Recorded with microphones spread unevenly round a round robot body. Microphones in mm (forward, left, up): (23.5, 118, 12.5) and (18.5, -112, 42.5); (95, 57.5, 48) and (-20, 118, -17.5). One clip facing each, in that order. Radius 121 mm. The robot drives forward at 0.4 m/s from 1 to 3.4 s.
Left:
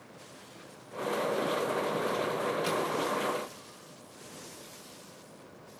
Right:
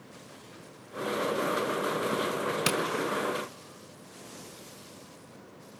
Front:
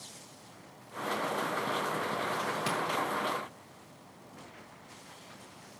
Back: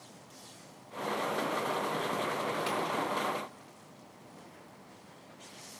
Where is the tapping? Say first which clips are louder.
Right 2 dB, front 1 dB; 95° right, 0.6 m; by 2.8 s 100° right, 0.6 m.